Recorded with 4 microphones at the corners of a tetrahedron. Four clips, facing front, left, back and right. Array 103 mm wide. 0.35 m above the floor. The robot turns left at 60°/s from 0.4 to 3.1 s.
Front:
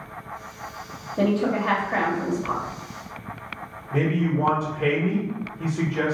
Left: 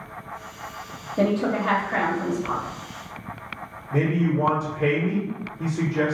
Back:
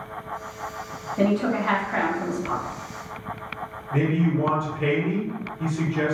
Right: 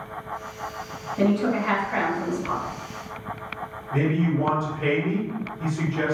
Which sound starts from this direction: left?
A man speaking, at 3.9 s.